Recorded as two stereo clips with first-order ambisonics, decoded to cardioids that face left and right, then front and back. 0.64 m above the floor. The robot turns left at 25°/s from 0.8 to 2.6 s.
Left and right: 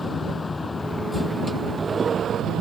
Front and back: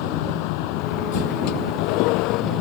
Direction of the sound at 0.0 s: 10° left.